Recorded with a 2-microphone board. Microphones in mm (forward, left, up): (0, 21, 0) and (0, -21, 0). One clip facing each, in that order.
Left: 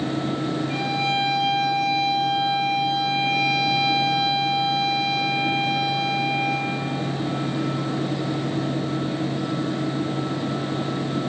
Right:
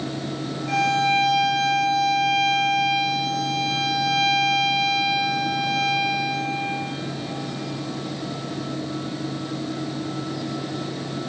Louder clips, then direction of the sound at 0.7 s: Right 9 dB; 85° right.